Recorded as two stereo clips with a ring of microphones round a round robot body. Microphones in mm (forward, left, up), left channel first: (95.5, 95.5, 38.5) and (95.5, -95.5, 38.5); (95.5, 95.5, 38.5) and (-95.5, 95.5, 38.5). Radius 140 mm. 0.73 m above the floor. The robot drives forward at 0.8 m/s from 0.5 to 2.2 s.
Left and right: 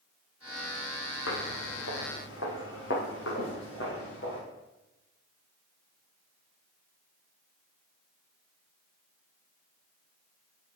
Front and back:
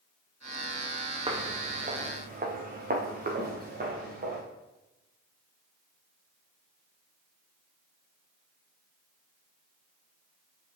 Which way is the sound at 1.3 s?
120° left.